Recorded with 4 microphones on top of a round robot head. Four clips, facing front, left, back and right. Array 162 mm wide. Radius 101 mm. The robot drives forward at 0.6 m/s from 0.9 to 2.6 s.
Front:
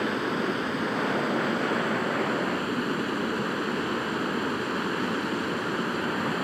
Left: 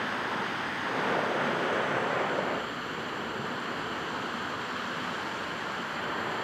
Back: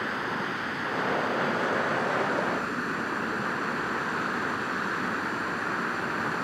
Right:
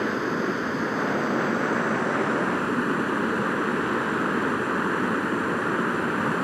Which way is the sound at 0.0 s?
60° right.